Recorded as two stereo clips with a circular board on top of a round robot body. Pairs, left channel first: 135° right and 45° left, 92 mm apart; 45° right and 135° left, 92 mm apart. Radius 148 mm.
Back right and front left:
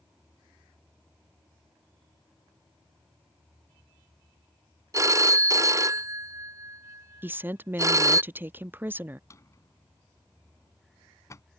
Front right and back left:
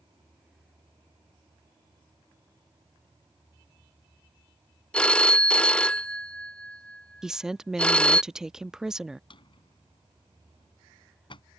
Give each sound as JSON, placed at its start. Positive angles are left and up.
{"t": 4.9, "sound": "a phone ringing", "azimuth_deg": 25}
{"t": 7.2, "sound": "a woman speaking", "azimuth_deg": 60}
{"t": 9.3, "sound": "a drawer", "azimuth_deg": -75}